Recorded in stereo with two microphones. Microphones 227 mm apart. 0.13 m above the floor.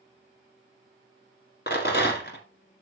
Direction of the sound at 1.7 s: 45° left (ahead or behind).